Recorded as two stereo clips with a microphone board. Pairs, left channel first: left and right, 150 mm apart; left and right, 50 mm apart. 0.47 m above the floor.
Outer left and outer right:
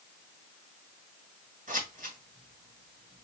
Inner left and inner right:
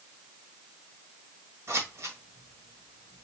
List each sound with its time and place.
1.7 s scissors: 65° right (ahead or behind), 1.6 m